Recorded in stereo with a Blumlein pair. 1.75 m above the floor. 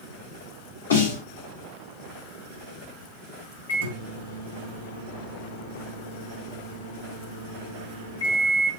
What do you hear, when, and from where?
0.9 s a snare drum: 65° left, 1.8 m
3.7 s a microwave: 60° left, 1.6 m